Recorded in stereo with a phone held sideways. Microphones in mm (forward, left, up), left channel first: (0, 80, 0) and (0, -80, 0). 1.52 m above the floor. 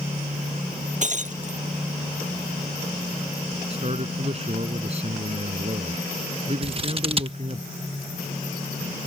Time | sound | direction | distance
1.0 | breaking glass | 50° right (ahead or behind) | ?
3.7 | a man speaking | 40° right (ahead or behind) | ?
6.6 | scissors | 35° right (ahead or behind) | ?